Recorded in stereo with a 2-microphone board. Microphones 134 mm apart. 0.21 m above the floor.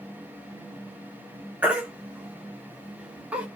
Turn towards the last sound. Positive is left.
turn(degrees=-10)  # may be behind; listen again after turning